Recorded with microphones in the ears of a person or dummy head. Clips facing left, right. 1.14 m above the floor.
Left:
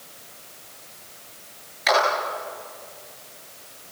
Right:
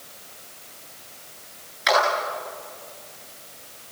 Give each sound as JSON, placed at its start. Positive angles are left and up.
{"t": 1.9, "sound": "a clap", "side_deg": -5, "distance_m": 10.0}